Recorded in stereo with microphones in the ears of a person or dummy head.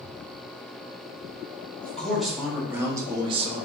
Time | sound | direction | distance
1.8 | a man speaking | 5° left (ahead or behind) | 1.4 m